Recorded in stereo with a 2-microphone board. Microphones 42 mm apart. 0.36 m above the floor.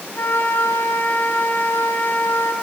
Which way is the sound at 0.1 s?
60° left (ahead or behind).